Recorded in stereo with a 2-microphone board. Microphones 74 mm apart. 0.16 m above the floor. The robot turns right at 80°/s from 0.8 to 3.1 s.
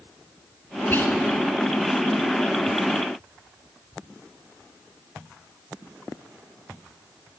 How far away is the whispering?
About 1.4 m.